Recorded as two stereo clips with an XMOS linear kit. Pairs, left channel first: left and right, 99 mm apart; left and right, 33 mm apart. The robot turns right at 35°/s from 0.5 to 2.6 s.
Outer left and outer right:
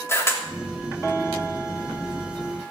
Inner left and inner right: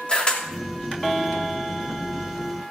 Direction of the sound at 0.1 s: 25° left (ahead or behind).